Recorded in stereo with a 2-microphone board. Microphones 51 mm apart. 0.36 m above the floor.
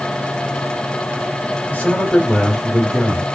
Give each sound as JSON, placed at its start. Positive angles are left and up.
{"t": 1.7, "sound": "a man speaking", "side_deg": 30, "distance_m": 1.3}